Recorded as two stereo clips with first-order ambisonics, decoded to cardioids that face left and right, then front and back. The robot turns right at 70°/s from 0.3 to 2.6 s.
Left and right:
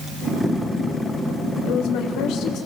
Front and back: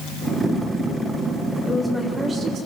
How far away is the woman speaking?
About 2 m.